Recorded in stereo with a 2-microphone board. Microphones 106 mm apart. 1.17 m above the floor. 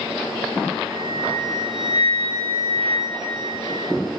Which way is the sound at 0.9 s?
15° left (ahead or behind).